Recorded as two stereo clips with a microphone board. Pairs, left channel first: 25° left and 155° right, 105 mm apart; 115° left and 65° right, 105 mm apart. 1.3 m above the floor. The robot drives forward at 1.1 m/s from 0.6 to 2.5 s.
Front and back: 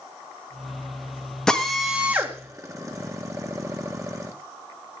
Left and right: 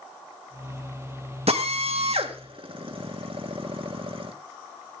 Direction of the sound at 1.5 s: 60° right.